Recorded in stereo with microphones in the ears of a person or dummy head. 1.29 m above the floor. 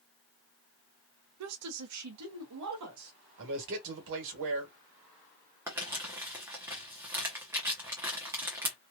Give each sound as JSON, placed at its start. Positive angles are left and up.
{"t": 1.4, "sound": "a woman speaking", "side_deg": -75, "distance_m": 0.6}
{"t": 3.4, "sound": "a man speaking", "side_deg": -70, "distance_m": 1.4}
{"t": 5.7, "sound": "crumpling", "side_deg": -15, "distance_m": 0.9}